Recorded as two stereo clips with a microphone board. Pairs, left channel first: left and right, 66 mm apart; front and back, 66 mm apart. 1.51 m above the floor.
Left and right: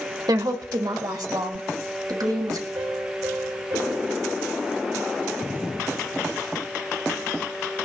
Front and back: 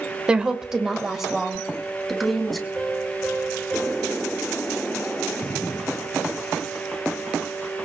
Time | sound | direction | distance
0.3 | a woman speaking | 105° right | 1.7 m
2.8 | a piano | 85° right | 9 m